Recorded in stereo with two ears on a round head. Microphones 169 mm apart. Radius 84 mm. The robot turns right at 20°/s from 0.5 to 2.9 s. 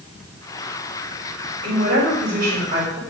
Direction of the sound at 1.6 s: 65° right (ahead or behind).